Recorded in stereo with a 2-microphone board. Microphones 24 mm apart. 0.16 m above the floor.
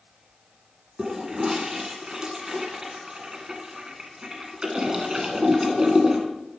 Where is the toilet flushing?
25° right (ahead or behind), 1.7 m.